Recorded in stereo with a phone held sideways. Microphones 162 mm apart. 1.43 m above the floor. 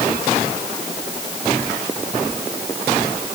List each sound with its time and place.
Only background noise.